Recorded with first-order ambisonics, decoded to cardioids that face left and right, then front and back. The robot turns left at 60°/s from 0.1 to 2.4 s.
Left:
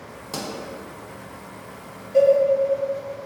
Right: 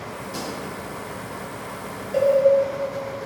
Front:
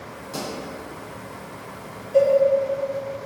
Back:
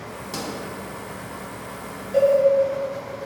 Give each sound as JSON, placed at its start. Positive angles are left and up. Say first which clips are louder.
{"t": 0.3, "sound": "a pop", "louder": "left 2 dB, even", "azimuth_deg": 115, "distance_m": 0.9}
{"t": 2.1, "sound": "a cowbell", "louder": "left 4 dB, even", "azimuth_deg": -110, "distance_m": 1.1}